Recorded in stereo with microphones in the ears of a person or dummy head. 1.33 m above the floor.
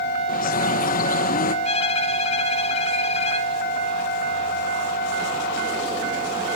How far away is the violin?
About 1.2 m.